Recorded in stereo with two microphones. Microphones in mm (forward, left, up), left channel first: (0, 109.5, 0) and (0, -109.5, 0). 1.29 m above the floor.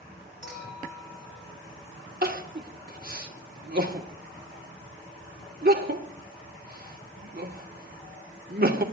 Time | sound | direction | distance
0.4 | a clink | 70° left (ahead or behind) | 4.5 m
2.2 | crying | 50° right (ahead or behind) | 1.1 m